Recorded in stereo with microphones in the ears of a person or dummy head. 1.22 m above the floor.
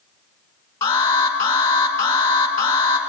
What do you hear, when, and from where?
0.8 s an alarm: 15° left (ahead or behind), 2 m